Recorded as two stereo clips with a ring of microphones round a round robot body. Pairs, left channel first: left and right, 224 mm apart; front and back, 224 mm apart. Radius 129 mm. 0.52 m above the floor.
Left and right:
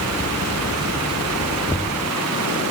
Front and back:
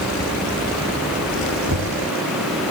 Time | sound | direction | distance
1.7 | knocking | 170° left | ?